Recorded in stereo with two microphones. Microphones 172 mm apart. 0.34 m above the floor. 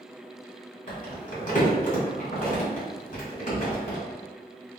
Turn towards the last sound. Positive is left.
turn(degrees=55)  # may be behind; listen again after turning